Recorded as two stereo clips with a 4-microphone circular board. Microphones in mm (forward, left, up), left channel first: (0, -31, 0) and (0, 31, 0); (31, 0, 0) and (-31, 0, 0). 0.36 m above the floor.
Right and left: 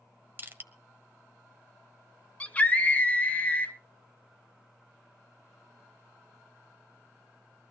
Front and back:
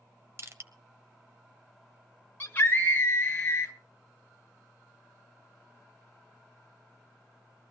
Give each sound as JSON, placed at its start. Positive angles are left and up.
{"t": 0.4, "sound": "crushing", "azimuth_deg": 140, "distance_m": 1.2}
{"t": 2.4, "sound": "a scream", "azimuth_deg": -35, "distance_m": 1.0}